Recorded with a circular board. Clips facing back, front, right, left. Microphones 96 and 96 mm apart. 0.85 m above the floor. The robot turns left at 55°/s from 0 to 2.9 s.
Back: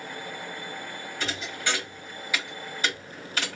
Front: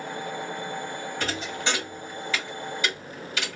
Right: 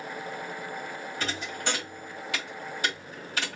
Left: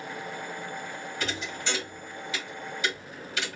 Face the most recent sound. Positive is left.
turn(degrees=-135)